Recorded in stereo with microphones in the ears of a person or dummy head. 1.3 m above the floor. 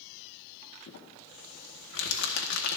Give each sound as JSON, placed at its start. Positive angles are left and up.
{"t": 0.9, "sound": "crumpling", "side_deg": 70, "distance_m": 1.8}